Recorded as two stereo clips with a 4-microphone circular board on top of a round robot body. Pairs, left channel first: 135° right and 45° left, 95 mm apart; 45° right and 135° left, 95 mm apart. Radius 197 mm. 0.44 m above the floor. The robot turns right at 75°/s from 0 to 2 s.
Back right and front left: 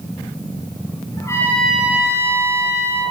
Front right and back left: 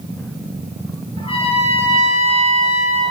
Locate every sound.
1.2 s a trumpet: 85° right, 10 m; by 3.1 s 20° right, 10 m